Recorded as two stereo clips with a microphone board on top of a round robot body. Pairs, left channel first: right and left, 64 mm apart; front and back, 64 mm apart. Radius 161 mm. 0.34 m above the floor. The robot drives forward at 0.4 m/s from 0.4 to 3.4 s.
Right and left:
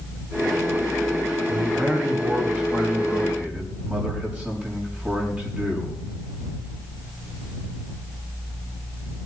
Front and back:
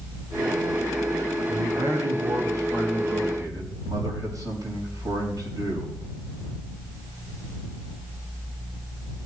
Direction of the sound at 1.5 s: 155° left.